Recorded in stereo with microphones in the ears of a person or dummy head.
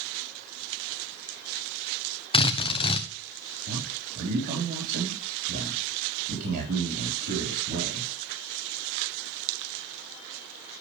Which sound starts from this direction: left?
A drill, at 2.3 s.